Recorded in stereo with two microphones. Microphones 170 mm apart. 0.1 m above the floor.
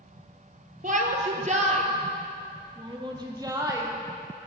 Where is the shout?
50° right (ahead or behind), 1.9 m; by 3.9 s 20° right (ahead or behind), 2.5 m.